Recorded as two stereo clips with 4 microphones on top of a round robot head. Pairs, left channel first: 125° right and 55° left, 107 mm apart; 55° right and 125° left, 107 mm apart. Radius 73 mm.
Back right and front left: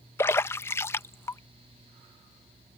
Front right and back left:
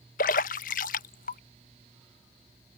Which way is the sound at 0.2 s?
55° right.